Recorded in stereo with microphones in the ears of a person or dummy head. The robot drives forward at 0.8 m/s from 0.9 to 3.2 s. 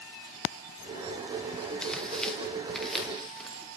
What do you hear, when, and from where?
1.8 s tearing paper: 5° left (ahead or behind), 0.7 m; by 3.6 s centre (ahead or behind), 1.8 m